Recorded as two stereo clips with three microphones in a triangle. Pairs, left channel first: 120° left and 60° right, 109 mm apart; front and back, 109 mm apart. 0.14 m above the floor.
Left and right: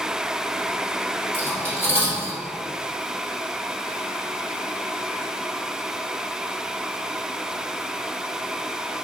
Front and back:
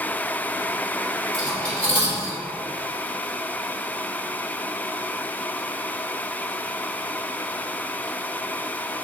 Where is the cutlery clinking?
125° right, 1.7 m.